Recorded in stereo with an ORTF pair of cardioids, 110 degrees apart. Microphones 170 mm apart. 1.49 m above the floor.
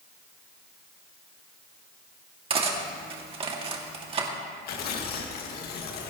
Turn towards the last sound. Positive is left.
turn(degrees=65)